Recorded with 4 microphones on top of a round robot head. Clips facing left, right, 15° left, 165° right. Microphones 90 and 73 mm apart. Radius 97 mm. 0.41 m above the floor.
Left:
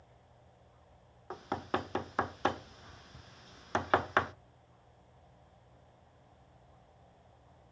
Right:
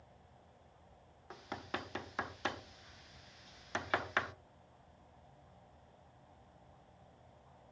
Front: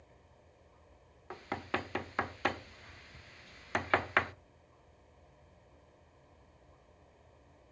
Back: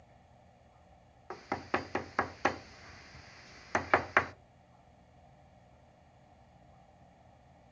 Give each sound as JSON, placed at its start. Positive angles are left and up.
{"t": 1.3, "sound": "knocking", "azimuth_deg": 120, "distance_m": 0.8}